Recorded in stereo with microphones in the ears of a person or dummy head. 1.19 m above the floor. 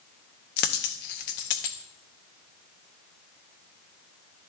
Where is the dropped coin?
45° left (ahead or behind), 0.6 m.